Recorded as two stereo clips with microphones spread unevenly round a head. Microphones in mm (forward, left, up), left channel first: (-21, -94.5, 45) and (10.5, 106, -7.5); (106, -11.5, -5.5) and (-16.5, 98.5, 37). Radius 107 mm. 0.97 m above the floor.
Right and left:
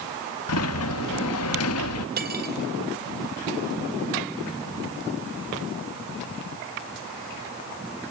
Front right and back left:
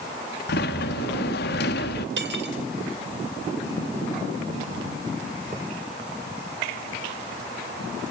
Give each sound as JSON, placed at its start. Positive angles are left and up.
{"t": 0.5, "sound": "a sliding door", "azimuth_deg": -75, "distance_m": 1.1}
{"t": 2.2, "sound": "cutlery clinking", "azimuth_deg": 130, "distance_m": 2.5}